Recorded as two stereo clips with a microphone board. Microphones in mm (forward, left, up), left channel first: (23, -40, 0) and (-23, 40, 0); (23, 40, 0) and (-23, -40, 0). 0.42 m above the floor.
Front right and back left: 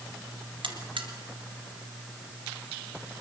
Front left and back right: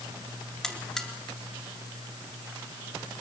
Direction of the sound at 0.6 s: 145° left.